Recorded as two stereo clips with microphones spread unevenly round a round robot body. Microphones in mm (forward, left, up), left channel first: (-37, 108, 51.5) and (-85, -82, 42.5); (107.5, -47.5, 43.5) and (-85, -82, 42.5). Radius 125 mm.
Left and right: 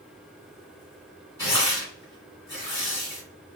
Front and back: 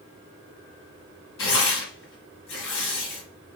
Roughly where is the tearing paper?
Ahead.